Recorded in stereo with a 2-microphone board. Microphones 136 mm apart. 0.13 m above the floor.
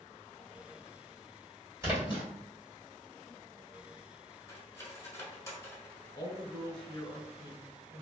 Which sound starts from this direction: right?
A splash, at 1.8 s.